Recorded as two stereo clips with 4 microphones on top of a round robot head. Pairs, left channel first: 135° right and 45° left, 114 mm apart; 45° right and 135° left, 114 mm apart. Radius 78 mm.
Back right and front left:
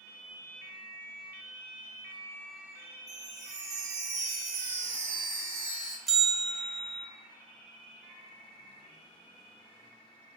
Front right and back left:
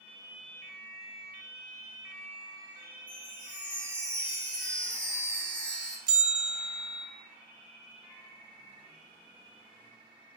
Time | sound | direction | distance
3.1 | a chime | 35° left | 1.4 m
6.1 | a bell | 135° left | 0.7 m